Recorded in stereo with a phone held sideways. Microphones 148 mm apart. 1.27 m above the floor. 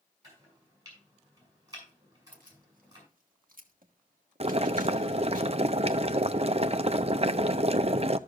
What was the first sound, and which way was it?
Chopping, 25° right (ahead or behind).